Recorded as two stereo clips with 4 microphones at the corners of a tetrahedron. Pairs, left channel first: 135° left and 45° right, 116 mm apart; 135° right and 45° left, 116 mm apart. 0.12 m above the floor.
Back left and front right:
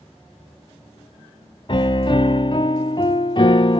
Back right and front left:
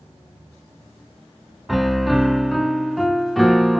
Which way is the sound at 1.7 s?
135° left.